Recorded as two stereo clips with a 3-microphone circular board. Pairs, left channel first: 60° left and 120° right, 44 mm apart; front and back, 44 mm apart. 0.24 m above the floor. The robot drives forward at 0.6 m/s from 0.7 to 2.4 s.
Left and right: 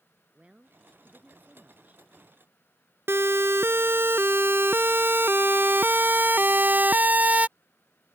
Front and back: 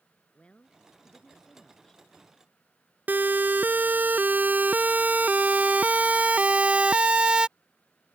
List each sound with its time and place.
0.3 s a woman speaking: 60° right; by 2.0 s 75° right
3.1 s a siren: 135° right; by 7.5 s 130° right